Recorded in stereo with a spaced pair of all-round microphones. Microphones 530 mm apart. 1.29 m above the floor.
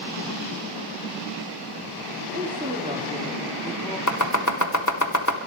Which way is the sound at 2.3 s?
15° right (ahead or behind).